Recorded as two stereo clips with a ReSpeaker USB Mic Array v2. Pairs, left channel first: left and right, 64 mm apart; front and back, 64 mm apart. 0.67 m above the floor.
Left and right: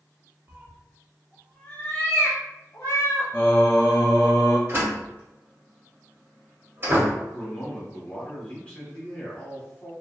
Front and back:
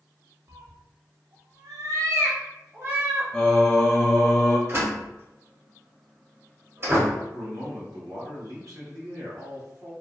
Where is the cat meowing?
150° right, 0.6 m; by 3.3 s 120° left, 1.3 m.